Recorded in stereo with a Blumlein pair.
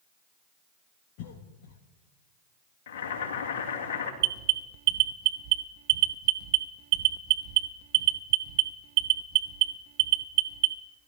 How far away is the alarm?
About 1.0 m.